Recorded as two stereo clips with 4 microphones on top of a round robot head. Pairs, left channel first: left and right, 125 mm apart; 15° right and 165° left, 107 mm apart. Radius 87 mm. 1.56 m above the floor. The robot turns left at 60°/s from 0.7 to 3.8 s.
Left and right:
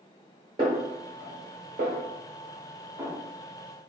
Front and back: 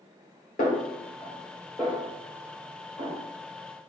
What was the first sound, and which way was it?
A snare drum, 30° right.